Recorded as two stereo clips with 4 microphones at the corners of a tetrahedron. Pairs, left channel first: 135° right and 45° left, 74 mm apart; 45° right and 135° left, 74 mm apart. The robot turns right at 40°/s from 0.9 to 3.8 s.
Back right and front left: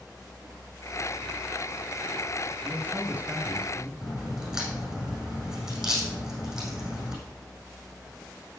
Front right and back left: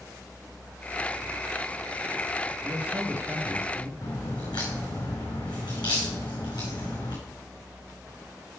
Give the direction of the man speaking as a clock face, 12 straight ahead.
10 o'clock.